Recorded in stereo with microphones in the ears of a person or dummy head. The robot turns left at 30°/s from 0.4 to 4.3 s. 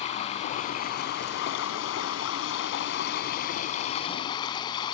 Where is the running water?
140° left; by 4.9 s 25° left.